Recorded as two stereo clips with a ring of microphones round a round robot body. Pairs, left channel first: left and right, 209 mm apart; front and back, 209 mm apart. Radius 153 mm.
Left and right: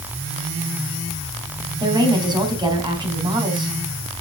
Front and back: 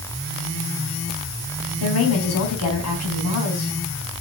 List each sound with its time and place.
1.8 s a woman speaking: 20° right, 3.5 m